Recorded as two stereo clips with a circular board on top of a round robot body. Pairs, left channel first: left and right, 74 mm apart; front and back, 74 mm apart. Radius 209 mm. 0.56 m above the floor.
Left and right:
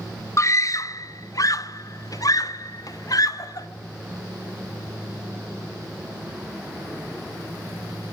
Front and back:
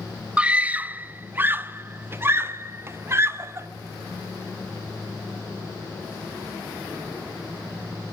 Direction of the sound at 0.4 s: 110° left.